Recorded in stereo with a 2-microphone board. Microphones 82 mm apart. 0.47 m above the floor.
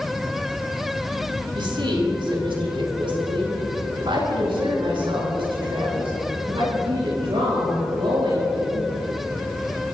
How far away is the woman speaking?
About 4 m.